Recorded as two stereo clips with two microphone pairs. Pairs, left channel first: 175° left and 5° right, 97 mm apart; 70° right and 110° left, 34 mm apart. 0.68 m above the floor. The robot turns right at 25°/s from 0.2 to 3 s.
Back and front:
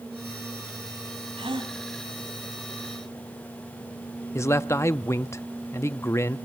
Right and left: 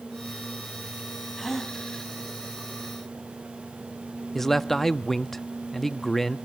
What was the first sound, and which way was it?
A gasp, 15° left.